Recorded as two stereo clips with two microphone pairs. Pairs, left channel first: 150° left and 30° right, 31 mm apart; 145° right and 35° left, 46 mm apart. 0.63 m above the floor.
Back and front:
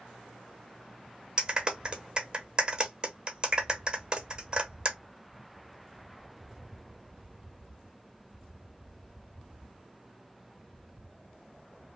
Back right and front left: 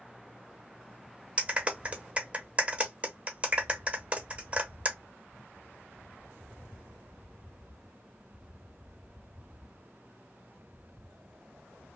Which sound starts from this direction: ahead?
A clap, at 1.4 s.